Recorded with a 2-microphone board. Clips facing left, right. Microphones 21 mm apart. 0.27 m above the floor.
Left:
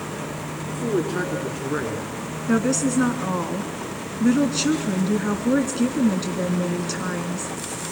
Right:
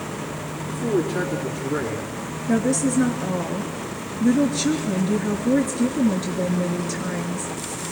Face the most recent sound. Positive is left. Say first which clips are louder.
# even
turn(degrees=45)  # may be behind; listen again after turning